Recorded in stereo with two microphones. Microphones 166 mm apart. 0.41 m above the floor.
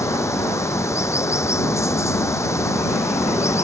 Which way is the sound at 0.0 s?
15° left (ahead or behind).